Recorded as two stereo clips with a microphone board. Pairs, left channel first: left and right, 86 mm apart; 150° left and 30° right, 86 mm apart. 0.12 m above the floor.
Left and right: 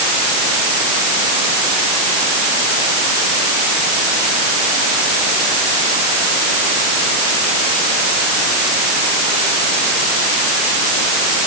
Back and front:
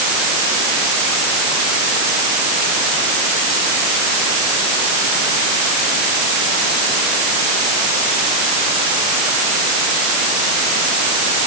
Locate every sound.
Only background noise.